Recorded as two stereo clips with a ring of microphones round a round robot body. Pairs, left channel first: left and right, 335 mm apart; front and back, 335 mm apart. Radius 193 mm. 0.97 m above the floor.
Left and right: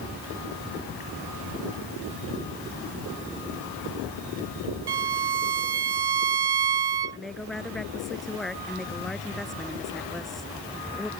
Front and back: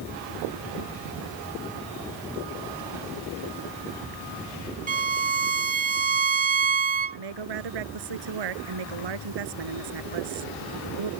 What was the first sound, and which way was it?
A violin, 115° right.